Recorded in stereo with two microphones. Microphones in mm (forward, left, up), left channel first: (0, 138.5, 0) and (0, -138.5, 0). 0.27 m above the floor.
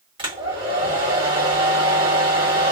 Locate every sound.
0.2 s a hair dryer: 20° right (ahead or behind), 1.6 m